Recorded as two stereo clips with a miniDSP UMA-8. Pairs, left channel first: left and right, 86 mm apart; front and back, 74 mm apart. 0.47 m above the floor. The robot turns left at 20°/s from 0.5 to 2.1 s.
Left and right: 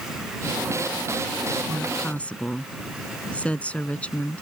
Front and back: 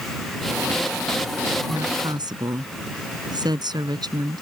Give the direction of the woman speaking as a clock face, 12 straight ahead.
6 o'clock.